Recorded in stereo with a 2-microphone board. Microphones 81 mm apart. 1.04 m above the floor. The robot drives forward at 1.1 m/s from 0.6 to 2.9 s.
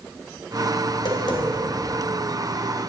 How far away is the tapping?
About 2 m.